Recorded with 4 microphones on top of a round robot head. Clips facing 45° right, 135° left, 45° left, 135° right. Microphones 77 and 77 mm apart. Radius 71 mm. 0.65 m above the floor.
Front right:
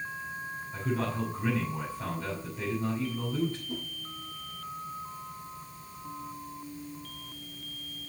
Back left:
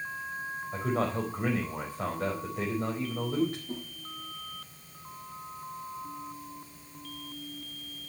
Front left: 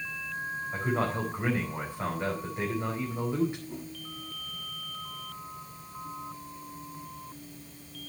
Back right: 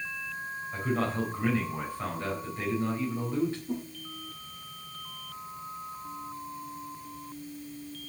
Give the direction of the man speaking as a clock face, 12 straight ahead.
8 o'clock.